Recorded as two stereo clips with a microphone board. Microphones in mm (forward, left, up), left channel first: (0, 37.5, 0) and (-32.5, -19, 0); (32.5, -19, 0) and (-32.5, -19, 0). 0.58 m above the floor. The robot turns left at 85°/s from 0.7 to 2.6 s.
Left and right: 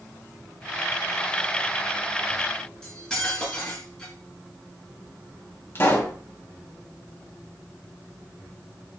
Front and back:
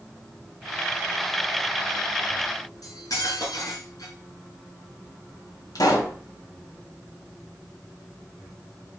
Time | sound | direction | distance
2.8 | cutlery clinking | 20° right | 5 m
5.8 | a pop | 5° left | 3.5 m